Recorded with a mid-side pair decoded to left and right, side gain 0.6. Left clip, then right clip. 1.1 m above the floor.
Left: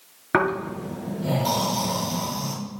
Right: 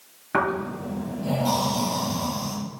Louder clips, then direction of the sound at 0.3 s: Left 2 dB; 40° left.